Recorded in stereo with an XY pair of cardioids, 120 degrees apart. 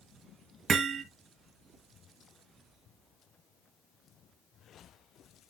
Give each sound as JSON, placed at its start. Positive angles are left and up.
{"t": 0.7, "sound": "hammering", "azimuth_deg": -40, "distance_m": 1.8}